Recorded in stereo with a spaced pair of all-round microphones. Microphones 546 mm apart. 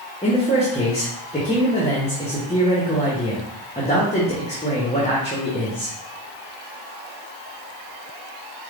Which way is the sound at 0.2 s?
10° left (ahead or behind).